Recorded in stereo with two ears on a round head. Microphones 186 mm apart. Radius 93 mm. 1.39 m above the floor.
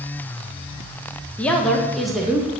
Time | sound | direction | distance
1.4 | a woman speaking | 5° left (ahead or behind) | 1.2 m